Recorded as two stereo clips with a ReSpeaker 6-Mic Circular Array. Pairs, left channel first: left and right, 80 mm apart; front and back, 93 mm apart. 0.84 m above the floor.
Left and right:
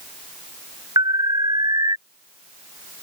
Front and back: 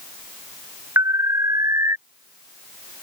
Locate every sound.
1.0 s an alarm: 120° right